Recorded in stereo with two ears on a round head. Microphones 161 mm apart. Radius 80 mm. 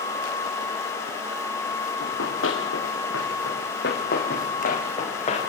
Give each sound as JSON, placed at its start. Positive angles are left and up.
{"t": 2.0, "sound": "running footsteps", "side_deg": 80, "distance_m": 5.0}